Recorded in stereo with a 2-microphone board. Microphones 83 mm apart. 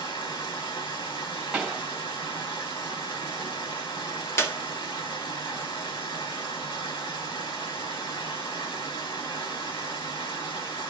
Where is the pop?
5° right (ahead or behind), 2.5 m.